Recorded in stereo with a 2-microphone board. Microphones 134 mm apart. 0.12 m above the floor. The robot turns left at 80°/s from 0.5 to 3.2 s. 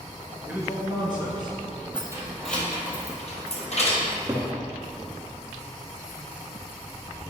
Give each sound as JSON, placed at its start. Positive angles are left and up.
{"t": 0.5, "sound": "a man speaking", "azimuth_deg": -25, "distance_m": 1.9}
{"t": 1.9, "sound": "keys jangling", "side_deg": -35, "distance_m": 2.0}
{"t": 4.0, "sound": "a cupboard door", "side_deg": -25, "distance_m": 1.7}